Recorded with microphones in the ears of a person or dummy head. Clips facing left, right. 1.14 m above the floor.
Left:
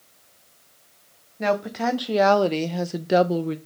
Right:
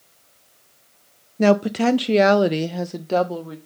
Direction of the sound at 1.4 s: 50° right (ahead or behind).